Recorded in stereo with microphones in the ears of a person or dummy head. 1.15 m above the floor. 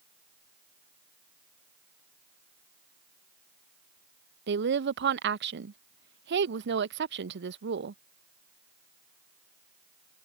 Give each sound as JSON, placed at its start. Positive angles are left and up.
{"t": 4.5, "sound": "a woman speaking", "side_deg": -65}